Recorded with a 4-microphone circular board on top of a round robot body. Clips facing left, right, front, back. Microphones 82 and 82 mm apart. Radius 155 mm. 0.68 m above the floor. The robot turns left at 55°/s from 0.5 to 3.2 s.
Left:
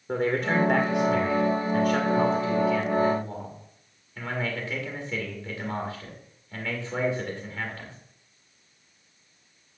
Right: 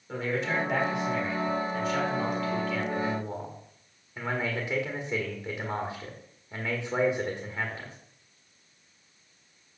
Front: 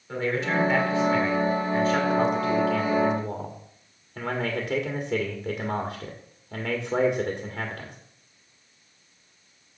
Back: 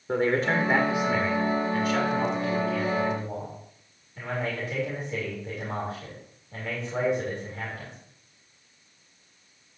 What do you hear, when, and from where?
0.1 s a man speaking: 135° left, 2.0 m; by 8.0 s 15° right, 2.0 m